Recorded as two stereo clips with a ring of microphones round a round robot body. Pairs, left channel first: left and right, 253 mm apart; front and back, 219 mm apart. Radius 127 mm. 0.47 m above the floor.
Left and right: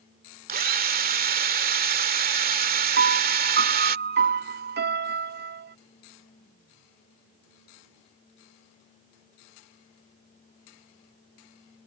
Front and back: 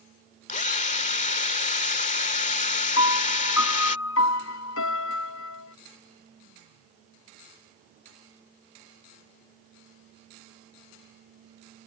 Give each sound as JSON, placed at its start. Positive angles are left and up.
{"t": 0.5, "sound": "a drill", "azimuth_deg": -50}
{"t": 3.0, "sound": "a piano", "azimuth_deg": -40}